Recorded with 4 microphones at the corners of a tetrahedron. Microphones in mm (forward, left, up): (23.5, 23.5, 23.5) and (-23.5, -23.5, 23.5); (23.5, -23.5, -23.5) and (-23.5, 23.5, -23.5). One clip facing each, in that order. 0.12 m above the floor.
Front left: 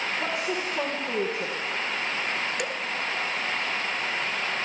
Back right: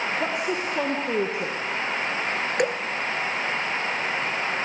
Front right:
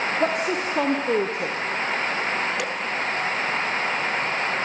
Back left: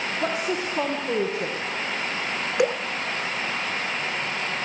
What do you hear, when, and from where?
0.2 s a woman speaking: 65° right, 3.5 m
2.6 s dripping: 160° right, 1.4 m